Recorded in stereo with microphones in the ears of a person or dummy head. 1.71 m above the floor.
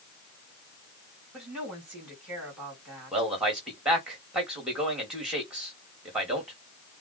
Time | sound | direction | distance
1.3 | a woman speaking | 5° right (ahead or behind) | 3.5 m
3.1 | a man speaking | 5° right (ahead or behind) | 2.5 m